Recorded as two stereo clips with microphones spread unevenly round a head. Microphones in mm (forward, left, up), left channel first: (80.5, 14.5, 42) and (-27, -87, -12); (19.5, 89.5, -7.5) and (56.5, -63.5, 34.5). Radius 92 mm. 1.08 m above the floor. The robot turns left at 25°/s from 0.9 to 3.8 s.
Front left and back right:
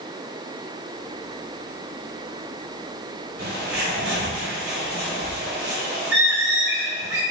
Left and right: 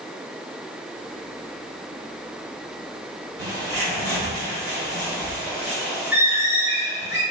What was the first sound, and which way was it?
A bird, 120° right.